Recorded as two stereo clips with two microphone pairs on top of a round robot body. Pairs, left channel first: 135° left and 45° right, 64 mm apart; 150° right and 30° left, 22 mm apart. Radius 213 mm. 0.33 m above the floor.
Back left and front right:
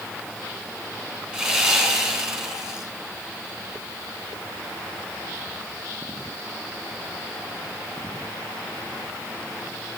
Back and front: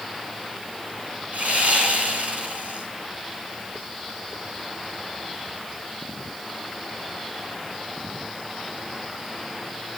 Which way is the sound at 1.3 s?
40° left.